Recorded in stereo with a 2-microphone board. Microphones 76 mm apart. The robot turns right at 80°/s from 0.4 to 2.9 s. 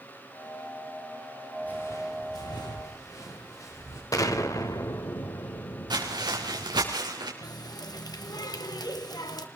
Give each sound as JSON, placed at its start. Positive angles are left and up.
{"t": 1.6, "sound": "footsteps", "side_deg": 20, "distance_m": 8.0}
{"t": 4.1, "sound": "an explosion", "side_deg": 50, "distance_m": 1.4}
{"t": 5.9, "sound": "footsteps", "side_deg": -85, "distance_m": 3.5}
{"t": 7.4, "sound": "a running tap", "side_deg": 65, "distance_m": 1.3}